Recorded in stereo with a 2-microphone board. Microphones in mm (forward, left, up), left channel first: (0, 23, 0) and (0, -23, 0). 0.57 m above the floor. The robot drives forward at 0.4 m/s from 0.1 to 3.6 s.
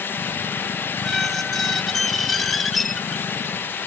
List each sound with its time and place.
1.0 s a squeak: centre (ahead or behind)